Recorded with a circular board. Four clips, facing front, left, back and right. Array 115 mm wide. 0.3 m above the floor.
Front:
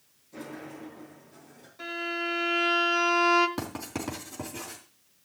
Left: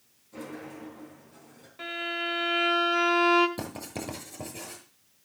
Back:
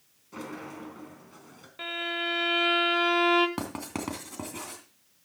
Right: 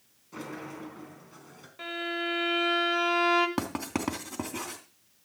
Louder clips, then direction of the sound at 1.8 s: Right 1 dB, front 1 dB; straight behind.